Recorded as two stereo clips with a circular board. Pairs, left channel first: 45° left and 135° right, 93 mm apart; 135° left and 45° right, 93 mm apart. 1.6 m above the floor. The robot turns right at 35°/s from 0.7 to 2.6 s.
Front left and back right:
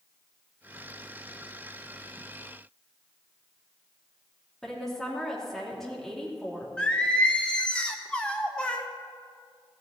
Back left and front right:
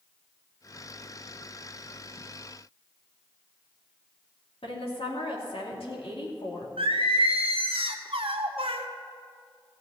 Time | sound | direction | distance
4.6 | a woman speaking | 130° left | 3 m
6.8 | singing | 35° right | 0.9 m